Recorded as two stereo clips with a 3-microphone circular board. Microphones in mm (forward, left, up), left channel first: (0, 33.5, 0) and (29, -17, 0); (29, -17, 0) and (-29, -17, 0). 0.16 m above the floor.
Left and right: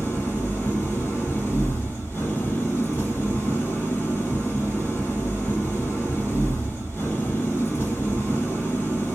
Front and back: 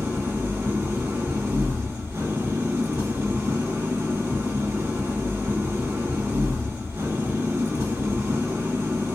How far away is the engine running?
About 1.9 m.